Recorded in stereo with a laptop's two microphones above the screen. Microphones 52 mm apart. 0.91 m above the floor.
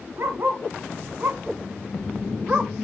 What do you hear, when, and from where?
0.2 s a dog barking: 55° right (ahead or behind), 2 m; by 2.7 s 30° right (ahead or behind), 1.0 m